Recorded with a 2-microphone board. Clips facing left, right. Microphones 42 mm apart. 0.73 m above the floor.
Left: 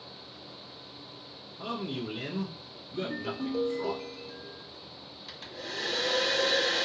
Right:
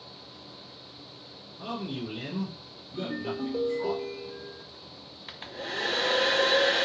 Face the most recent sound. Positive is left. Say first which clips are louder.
# right 4 dB
turn(degrees=-35)  # may be behind; listen again after turning